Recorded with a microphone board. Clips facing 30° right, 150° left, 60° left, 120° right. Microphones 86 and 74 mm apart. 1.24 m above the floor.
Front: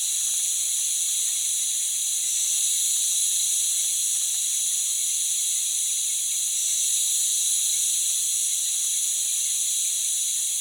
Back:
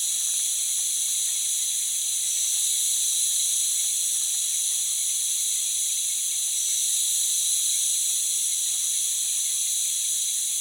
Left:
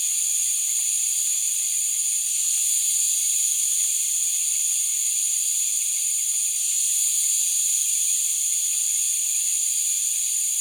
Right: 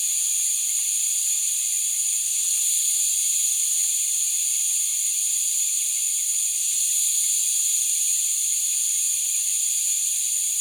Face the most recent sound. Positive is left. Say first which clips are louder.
# even, even
turn(degrees=120)